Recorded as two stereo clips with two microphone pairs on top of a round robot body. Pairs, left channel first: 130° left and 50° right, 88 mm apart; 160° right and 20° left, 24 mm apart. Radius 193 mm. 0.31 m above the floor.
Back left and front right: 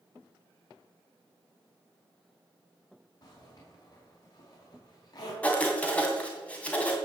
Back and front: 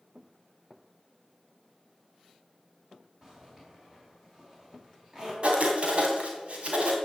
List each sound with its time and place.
3.2 s a zipper: 85° left, 5 m
5.4 s writing: 55° left, 2.5 m